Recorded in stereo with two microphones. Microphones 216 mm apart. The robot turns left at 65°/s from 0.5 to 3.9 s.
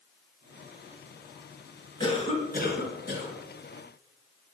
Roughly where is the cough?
Behind left.